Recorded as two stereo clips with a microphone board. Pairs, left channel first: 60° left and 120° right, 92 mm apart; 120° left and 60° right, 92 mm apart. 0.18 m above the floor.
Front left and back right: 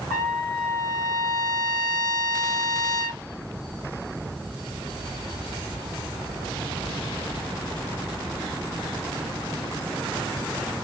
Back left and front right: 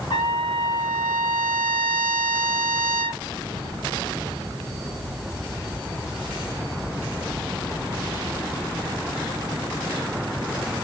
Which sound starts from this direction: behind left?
A trumpet, at 0.1 s.